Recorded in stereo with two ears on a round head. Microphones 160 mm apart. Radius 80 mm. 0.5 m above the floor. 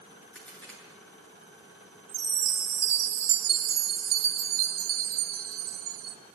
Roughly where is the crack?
Centre.